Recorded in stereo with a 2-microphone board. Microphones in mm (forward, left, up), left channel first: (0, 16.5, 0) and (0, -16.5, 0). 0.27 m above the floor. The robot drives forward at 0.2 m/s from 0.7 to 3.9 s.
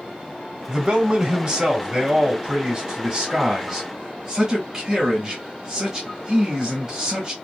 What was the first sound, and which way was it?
A man speaking, 20° right (ahead or behind).